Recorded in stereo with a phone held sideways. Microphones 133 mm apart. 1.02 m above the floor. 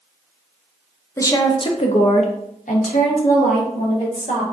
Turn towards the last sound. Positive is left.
turn(degrees=80)